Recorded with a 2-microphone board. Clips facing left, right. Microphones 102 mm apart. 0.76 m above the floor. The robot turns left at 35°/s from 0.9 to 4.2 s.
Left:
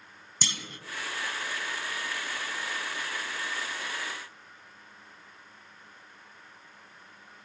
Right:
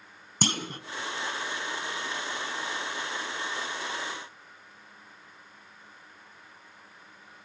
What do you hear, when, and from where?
0.4 s a clunk: 50° right (ahead or behind), 1.0 m